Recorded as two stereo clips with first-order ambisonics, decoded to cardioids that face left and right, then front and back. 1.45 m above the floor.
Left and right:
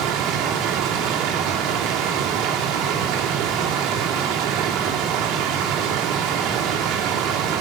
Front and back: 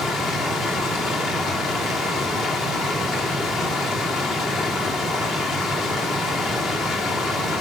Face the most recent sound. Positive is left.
turn(degrees=-55)